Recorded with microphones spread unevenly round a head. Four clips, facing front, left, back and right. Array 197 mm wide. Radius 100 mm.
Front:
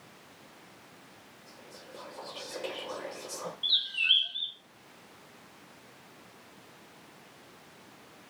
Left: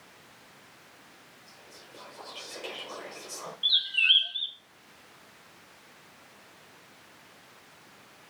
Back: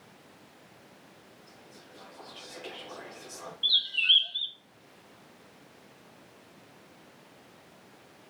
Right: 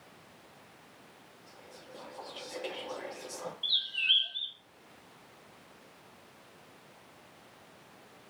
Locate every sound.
1.5 s whispering: 15° right, 5 m
3.6 s a bird: 125° left, 1.0 m